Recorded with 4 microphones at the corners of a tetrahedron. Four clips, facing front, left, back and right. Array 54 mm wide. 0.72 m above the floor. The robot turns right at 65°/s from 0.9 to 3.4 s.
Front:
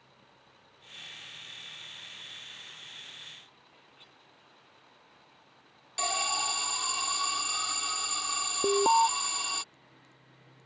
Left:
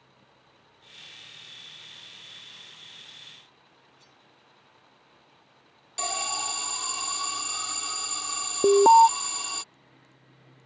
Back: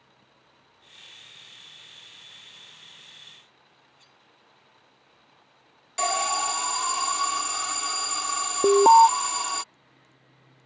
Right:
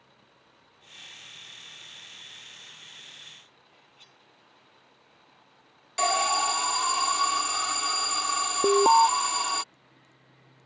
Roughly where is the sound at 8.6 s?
Behind.